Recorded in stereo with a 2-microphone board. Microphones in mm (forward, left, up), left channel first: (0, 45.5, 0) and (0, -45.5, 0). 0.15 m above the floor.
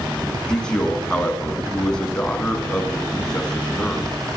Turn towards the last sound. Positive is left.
turn(degrees=10)  # may be behind; listen again after turning